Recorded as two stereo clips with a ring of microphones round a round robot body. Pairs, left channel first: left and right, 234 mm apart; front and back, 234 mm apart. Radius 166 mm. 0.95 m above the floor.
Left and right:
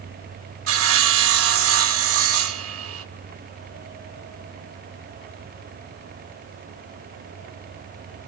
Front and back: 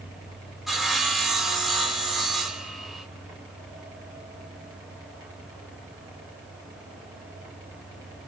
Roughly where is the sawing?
Right.